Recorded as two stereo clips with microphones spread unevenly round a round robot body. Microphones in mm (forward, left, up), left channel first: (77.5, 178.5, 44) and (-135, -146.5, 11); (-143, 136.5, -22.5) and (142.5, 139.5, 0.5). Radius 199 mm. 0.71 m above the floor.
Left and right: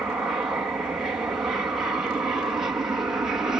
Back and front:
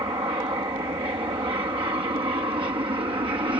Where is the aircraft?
50° right.